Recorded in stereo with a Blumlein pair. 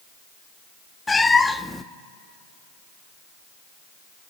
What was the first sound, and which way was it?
A cat meowing, 10° left.